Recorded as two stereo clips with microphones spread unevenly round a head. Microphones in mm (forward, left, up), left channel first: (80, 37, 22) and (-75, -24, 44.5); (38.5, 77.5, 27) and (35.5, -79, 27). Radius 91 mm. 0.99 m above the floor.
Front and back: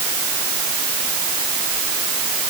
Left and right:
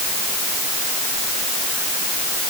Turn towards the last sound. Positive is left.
No sound to turn to.